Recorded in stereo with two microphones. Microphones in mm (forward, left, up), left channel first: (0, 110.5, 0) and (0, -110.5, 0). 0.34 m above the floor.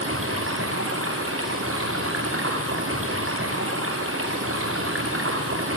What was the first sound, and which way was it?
Running water, 75° right (ahead or behind).